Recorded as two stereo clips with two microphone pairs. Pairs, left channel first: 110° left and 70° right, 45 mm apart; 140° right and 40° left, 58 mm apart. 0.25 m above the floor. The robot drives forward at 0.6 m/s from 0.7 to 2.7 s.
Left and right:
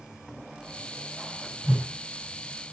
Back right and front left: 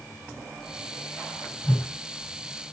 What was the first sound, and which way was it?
A whoosh, 155° right.